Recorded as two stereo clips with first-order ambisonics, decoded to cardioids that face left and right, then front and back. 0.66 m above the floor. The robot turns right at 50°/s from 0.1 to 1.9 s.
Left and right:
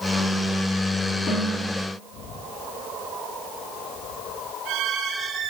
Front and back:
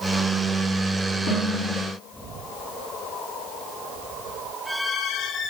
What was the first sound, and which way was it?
A snare drum, 35° left.